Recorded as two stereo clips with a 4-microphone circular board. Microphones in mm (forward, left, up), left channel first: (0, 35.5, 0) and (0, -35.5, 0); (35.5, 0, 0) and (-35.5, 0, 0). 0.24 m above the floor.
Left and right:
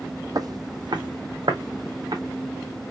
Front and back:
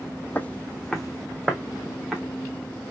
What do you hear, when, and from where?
0.3 s footsteps: 65° right, 0.6 m; by 2.2 s 100° right, 1.8 m